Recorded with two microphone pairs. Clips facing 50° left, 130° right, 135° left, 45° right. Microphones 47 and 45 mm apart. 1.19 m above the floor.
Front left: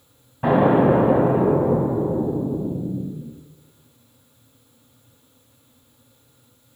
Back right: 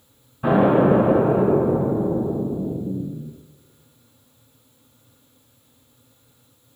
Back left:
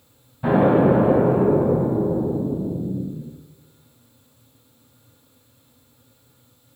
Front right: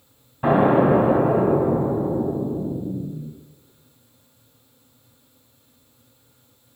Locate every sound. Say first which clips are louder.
0.4 s an explosion: even, even; 5° left, 1.6 m